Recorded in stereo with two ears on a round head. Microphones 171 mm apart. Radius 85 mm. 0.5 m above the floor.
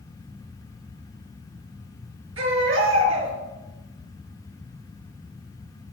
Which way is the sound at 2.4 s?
80° right.